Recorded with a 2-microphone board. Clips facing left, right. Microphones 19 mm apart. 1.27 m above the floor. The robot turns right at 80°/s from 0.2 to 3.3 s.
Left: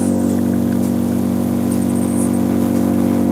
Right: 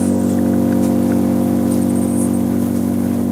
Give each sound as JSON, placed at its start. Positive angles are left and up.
{"t": 0.0, "sound": "an engine running", "azimuth_deg": -155, "distance_m": 2.0}